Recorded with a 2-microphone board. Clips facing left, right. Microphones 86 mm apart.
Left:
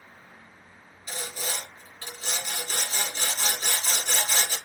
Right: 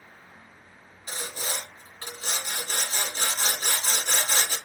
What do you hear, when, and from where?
1.1 s sawing: 45° right (ahead or behind), 1.9 m